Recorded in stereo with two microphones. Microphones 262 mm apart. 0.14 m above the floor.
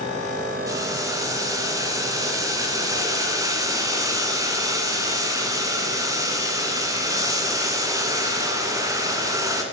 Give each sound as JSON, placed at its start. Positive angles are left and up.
{"t": 0.7, "sound": "boiling", "side_deg": -10, "distance_m": 1.5}